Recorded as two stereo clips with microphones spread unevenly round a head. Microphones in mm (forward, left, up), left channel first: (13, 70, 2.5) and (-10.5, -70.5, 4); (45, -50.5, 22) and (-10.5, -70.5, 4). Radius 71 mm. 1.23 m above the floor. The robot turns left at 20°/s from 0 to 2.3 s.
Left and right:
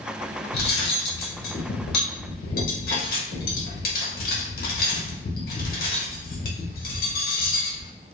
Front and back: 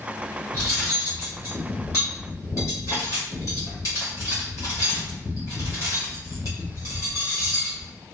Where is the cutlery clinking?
95° left, 0.8 m; by 7.9 s 60° left, 0.8 m.